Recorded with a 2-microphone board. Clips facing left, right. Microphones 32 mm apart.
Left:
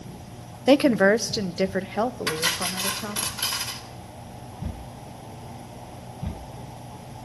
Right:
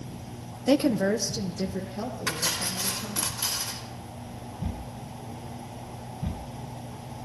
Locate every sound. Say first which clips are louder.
0.7 s a woman speaking: left 6 dB; 35° left (ahead or behind), 0.7 m; by 3.3 s 80° left, 2.5 m
2.3 s cutlery clinking: left 4 dB; 40° left (ahead or behind), 4 m